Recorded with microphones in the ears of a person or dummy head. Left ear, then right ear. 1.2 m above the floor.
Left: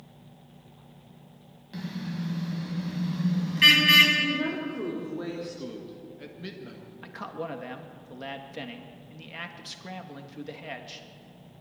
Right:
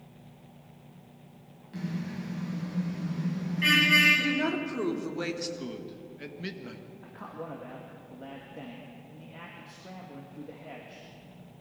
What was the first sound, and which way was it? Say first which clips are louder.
A car horn: left 1 dB; 15° left (ahead or behind).